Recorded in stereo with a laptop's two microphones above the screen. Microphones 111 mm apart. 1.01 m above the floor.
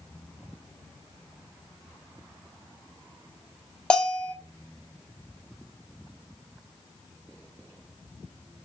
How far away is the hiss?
No hiss in this recording.